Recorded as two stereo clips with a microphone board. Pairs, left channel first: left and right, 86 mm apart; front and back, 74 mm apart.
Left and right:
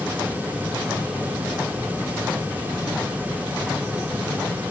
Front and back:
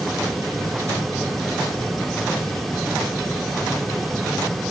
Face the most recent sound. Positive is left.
No sound to turn to.